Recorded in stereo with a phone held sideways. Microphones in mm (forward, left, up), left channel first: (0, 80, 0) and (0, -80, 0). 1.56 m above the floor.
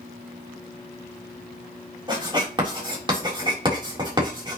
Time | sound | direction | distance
2.1 | writing | 30° right (ahead or behind) | 3.5 m